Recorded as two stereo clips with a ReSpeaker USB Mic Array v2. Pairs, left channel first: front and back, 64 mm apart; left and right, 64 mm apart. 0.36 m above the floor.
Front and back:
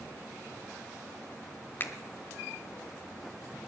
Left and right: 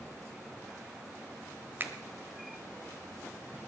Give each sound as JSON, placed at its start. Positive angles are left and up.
{"t": 1.8, "sound": "a finger snap", "azimuth_deg": -45, "distance_m": 1.2}